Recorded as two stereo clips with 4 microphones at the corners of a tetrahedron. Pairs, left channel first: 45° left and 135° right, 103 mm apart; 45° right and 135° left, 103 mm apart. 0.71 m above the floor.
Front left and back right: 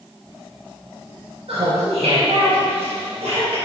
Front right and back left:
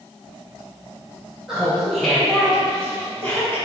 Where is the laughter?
135° right, 3 m; by 3.6 s 105° right, 4 m.